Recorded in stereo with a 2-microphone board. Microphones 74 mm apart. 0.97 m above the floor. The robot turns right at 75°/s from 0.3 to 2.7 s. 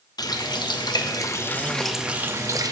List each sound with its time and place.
0.2 s a running tap: 60° left, 0.7 m; by 2.7 s 120° right, 0.7 m